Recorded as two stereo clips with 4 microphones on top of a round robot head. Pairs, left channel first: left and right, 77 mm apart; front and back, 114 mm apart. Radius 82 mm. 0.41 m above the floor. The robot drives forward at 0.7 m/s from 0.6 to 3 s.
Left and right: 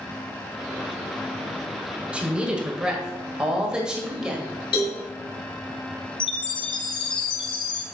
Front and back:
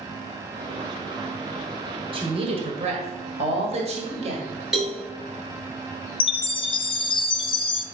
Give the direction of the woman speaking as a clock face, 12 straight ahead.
5 o'clock.